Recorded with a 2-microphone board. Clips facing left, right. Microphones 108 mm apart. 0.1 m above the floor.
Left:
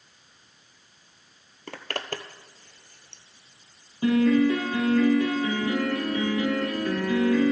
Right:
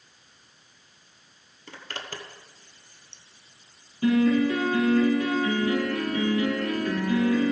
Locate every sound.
1.7 s a zipper: 60° left (ahead or behind), 0.8 m
4.0 s a piano: 30° left (ahead or behind), 3.5 m